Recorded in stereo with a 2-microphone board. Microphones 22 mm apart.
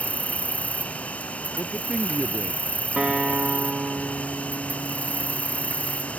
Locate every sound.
0.0 s an insect: 80° left
1.6 s a man speaking: 10° right (ahead or behind)
3.0 s a guitar: 40° right (ahead or behind)